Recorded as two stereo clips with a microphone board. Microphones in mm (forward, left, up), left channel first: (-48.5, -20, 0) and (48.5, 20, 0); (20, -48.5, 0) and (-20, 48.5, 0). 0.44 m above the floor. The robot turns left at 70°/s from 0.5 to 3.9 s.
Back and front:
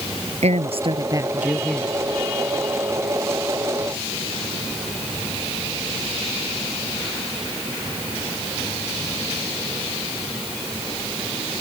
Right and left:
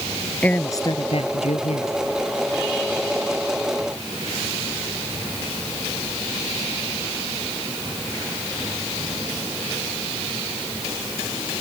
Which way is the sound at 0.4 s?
10° left.